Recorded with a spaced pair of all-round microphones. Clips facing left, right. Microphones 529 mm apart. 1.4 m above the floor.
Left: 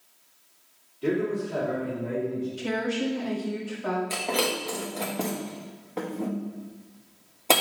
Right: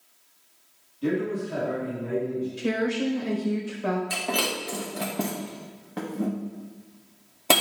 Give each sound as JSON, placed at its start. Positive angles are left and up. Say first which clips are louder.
{"t": 1.0, "sound": "a man speaking", "louder": "even", "side_deg": -60, "distance_m": 2.5}
{"t": 2.6, "sound": "a woman speaking", "louder": "right 4 dB", "side_deg": -75, "distance_m": 1.3}
{"t": 4.1, "sound": "breaking glass", "louder": "left 2 dB", "side_deg": -35, "distance_m": 1.1}